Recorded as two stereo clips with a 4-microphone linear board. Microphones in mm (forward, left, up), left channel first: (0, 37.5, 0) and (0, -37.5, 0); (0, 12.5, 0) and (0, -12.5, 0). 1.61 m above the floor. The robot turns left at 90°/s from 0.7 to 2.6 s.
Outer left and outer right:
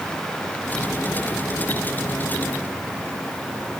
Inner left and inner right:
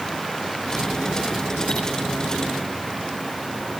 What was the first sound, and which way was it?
Only background noise.